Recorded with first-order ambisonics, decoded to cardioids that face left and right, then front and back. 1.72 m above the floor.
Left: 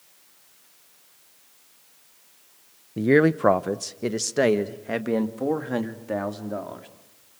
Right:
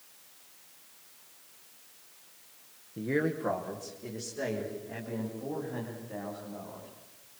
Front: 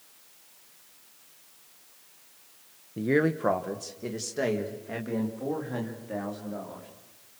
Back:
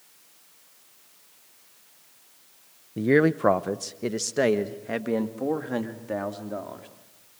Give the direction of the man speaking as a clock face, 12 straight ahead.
8 o'clock.